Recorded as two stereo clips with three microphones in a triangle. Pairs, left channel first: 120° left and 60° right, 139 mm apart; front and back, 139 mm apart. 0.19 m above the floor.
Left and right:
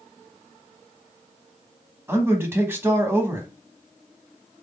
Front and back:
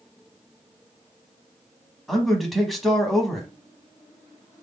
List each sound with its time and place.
2.1 s a man speaking: 85° right, 1.0 m